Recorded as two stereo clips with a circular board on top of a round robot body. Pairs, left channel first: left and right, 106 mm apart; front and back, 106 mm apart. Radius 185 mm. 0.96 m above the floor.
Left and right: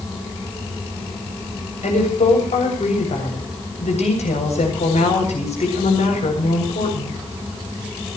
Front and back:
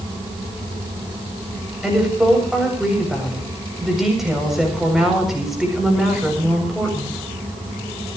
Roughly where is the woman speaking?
Left.